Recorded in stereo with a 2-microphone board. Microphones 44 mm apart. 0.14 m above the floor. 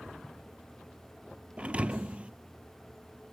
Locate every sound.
1.6 s a thud: 30° right (ahead or behind), 0.9 m